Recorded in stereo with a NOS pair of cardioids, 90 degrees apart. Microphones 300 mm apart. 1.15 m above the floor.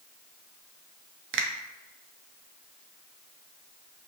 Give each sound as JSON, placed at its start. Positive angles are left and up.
{"t": 1.3, "sound": "a finger snap", "azimuth_deg": -45, "distance_m": 0.5}